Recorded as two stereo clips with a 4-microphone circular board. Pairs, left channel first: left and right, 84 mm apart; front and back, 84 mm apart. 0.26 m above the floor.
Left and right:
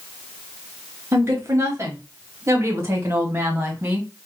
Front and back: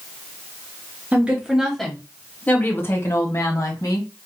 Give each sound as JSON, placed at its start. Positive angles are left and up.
{"t": 1.1, "sound": "a woman speaking", "azimuth_deg": -120, "distance_m": 1.1}